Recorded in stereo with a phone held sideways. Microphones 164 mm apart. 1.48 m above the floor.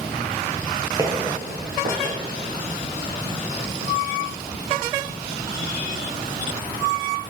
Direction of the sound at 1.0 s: 20° right (ahead or behind).